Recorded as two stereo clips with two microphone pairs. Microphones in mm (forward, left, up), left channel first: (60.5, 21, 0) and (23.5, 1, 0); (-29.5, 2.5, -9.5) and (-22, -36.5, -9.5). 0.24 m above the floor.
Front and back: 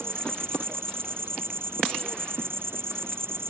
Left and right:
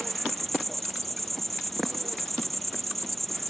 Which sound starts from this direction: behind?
An insect, at 0.0 s.